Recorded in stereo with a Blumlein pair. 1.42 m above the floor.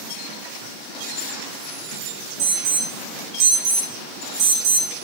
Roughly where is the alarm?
Ahead right.